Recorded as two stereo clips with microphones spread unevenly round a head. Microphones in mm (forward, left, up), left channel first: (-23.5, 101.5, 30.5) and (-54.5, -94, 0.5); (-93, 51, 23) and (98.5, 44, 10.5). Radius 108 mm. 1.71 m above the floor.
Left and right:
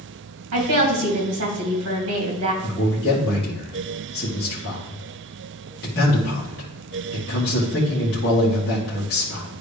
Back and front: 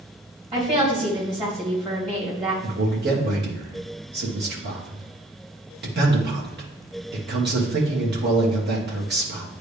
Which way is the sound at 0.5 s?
75° right.